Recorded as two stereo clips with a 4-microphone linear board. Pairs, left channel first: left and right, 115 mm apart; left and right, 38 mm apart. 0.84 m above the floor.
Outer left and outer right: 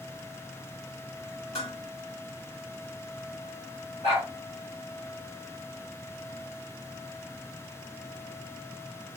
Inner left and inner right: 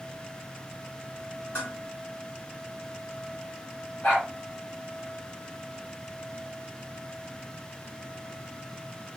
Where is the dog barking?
65° left (ahead or behind), 2 m.